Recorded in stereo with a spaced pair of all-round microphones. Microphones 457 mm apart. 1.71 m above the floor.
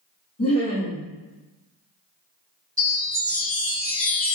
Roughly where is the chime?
Right.